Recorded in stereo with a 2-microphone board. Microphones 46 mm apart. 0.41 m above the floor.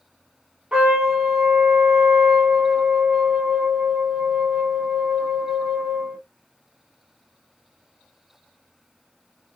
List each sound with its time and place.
0.7 s a trumpet: 25° right (ahead or behind), 1.1 m